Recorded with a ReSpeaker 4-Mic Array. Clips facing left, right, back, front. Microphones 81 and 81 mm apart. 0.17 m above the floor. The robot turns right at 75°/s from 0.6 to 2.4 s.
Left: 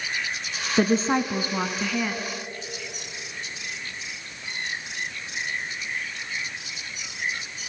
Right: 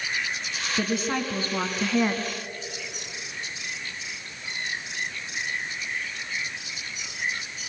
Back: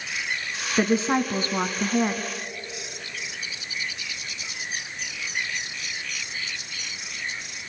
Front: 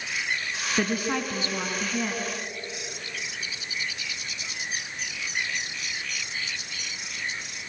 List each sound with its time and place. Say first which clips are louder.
0.8 s a woman speaking: left 6 dB, back 6 dB; 110° left, 1.6 m; by 2.3 s 135° right, 1.6 m